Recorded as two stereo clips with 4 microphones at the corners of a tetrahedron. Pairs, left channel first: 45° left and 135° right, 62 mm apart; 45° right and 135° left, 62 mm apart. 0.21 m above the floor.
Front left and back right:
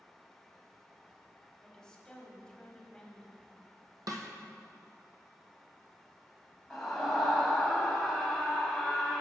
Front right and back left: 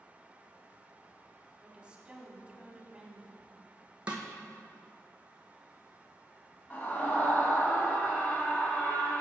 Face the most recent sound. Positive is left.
turn(degrees=-35)